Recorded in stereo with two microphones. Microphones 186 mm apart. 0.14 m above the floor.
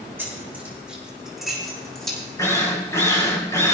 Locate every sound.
0.2 s keys jangling: 10° right (ahead or behind), 7 m; by 2.2 s 5° left (ahead or behind), 7.5 m
2.4 s a drill: 20° left (ahead or behind), 4 m